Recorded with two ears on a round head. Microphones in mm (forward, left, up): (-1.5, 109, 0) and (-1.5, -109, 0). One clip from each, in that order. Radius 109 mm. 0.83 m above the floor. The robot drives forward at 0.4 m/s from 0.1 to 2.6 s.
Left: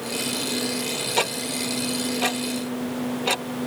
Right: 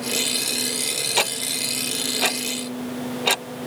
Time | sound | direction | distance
1.2 | ticking | 40° right (ahead or behind) | ?